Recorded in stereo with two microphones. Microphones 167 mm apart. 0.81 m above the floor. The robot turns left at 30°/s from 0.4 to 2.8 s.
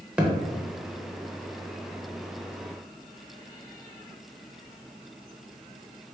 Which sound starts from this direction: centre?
A thud, at 0.2 s.